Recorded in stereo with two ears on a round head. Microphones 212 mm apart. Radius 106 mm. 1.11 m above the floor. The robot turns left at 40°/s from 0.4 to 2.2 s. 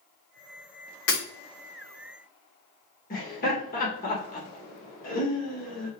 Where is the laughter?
35° left (ahead or behind), 1.5 m.